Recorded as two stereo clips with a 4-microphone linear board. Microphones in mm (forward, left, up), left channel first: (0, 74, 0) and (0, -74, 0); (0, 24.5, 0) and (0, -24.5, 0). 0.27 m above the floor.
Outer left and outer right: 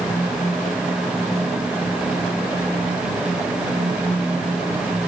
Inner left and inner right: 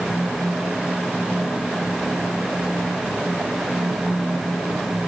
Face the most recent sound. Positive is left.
No sound to turn to.